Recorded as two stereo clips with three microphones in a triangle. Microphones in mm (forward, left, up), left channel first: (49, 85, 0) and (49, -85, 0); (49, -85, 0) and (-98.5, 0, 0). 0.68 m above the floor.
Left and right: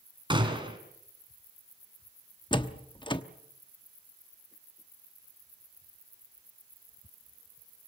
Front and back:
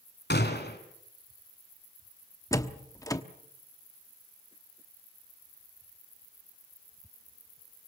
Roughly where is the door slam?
Ahead left.